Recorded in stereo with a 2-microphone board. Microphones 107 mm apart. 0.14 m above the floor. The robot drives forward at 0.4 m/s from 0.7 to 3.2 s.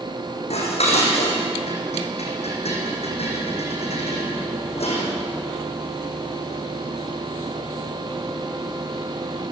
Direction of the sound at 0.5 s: 80° left.